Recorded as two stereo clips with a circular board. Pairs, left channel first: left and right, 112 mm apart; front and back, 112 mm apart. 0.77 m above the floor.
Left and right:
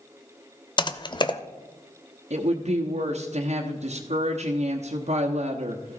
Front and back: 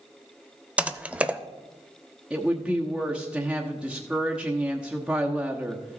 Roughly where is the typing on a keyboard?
Left.